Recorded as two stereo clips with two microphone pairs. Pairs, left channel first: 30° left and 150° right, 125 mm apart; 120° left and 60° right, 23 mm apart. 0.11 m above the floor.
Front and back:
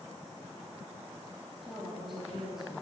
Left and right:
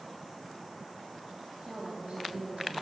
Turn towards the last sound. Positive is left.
turn(degrees=-60)